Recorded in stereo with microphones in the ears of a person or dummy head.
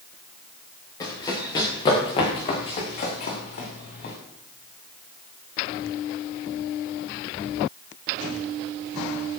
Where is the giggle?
I don't hear a giggle.